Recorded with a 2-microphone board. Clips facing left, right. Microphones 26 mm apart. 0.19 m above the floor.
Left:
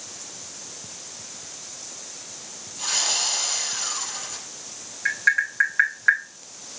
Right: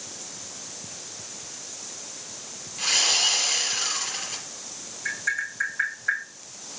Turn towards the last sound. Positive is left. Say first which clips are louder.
# left 7 dB
turn(degrees=50)  # may be behind; listen again after turning